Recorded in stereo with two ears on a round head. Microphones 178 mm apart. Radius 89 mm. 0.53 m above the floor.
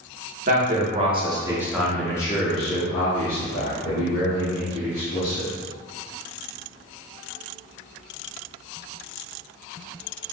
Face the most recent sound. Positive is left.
turn(degrees=65)  # may be behind; listen again after turning